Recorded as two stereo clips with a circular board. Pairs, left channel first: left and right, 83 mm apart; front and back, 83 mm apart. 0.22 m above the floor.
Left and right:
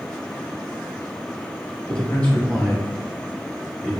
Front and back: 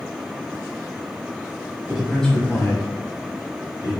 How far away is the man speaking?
About 1.2 m.